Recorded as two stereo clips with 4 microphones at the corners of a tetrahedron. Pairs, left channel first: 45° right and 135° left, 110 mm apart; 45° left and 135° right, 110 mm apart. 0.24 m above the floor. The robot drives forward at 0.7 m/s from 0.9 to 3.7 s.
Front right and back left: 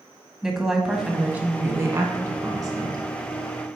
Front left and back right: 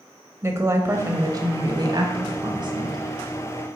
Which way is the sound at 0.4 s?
145° right.